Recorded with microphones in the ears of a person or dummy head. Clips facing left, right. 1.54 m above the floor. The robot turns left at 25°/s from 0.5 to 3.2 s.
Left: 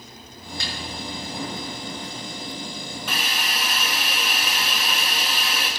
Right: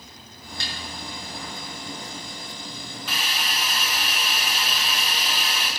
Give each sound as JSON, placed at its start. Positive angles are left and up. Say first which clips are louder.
{"t": 0.6, "sound": "a snare drum", "louder": "left 2 dB", "side_deg": 80, "distance_m": 7.0}
{"t": 3.1, "sound": "a hiss", "louder": "left 1 dB", "side_deg": 50, "distance_m": 2.5}